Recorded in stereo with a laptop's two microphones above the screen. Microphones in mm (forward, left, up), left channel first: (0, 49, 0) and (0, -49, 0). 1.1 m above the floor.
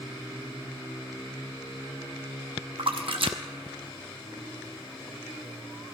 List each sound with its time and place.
2.8 s a splash: 65° right (ahead or behind), 0.7 m